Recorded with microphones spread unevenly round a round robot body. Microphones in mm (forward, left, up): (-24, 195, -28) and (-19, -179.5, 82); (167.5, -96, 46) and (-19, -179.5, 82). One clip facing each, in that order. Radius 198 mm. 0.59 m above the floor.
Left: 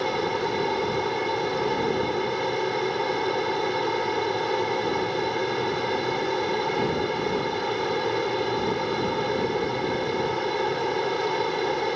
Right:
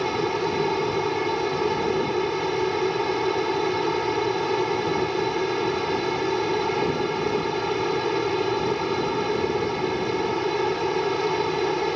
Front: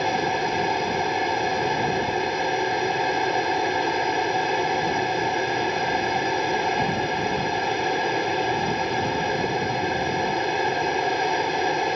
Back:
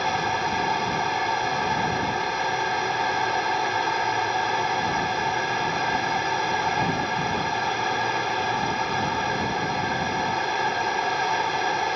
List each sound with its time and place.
0.0 s an aircraft: 35° right